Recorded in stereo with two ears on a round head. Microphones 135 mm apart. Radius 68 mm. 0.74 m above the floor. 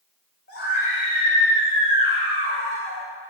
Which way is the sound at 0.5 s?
75° left (ahead or behind).